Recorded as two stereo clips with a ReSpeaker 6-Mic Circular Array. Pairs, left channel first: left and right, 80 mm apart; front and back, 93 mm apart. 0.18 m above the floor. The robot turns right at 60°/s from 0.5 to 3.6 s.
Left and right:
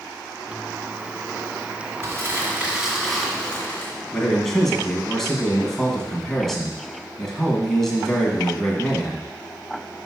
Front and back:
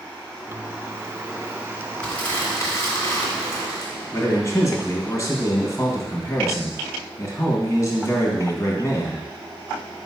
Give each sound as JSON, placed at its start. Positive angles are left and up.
{"t": 2.0, "sound": "crumpling", "azimuth_deg": -70, "distance_m": 1.8}
{"t": 4.1, "sound": "a man speaking", "azimuth_deg": 5, "distance_m": 1.4}